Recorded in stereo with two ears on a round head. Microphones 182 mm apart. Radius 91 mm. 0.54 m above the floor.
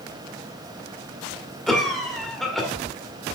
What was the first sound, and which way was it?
A cough, centre (ahead or behind).